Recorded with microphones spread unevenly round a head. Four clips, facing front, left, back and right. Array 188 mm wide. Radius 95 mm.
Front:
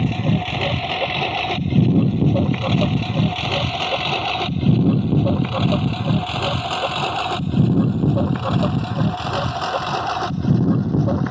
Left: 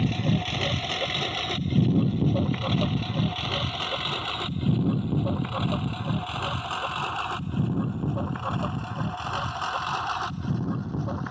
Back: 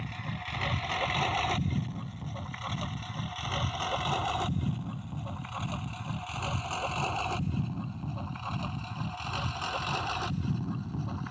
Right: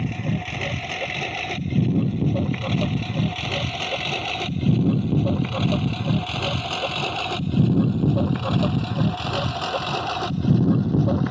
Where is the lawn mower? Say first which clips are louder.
Left 1 dB, front 18 dB; 5° left; by 11.3 s 35° right.